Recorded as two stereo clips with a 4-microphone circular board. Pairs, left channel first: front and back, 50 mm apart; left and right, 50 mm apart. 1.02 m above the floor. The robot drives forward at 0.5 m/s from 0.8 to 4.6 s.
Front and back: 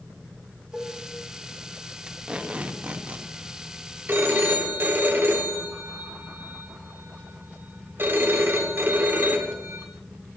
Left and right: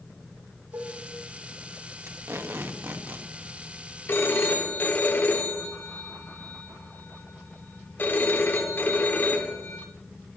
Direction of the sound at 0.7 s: 95° right.